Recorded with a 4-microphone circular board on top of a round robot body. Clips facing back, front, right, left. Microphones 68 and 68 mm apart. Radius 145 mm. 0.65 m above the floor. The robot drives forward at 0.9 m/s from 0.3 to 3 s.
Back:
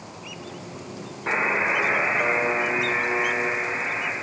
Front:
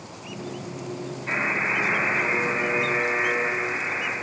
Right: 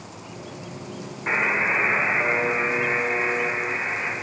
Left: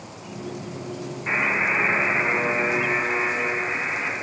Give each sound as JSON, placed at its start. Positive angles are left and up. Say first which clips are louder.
{"t": 1.3, "sound": "a buzzer", "louder": "back 3 dB, right 1 dB", "azimuth_deg": -155, "distance_m": 1.0}